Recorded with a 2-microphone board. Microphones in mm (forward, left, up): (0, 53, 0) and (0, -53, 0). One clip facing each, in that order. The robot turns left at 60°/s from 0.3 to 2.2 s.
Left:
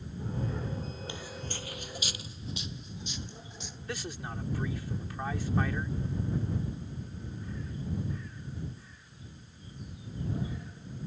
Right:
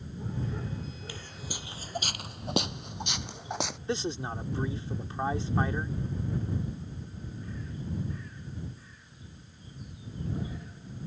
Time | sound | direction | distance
1.1 | footsteps | 25° left (ahead or behind) | ?
3.9 | a man speaking | 25° right (ahead or behind) | ?